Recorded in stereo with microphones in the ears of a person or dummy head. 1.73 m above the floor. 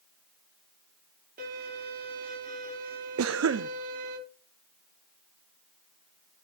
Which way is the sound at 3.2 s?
70° right (ahead or behind).